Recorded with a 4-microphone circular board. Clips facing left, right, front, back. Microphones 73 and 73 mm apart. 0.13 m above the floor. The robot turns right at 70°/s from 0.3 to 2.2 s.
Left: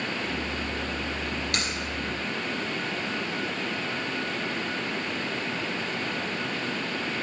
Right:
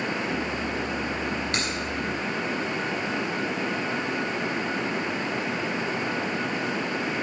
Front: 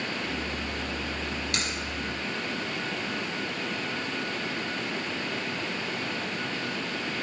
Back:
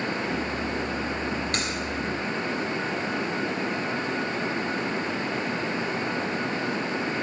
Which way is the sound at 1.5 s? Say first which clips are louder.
Right 2 dB, back 3 dB; 140° right.